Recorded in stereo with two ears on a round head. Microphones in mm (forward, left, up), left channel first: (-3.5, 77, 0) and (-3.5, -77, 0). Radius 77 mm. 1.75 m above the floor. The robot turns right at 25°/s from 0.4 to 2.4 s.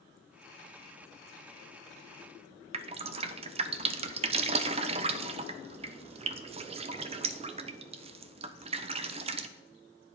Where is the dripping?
35° right (ahead or behind), 0.8 m.